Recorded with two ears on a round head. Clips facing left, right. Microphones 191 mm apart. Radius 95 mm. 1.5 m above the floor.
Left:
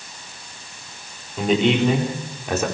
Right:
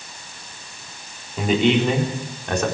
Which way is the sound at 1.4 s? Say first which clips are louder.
Even; 5° right (ahead or behind).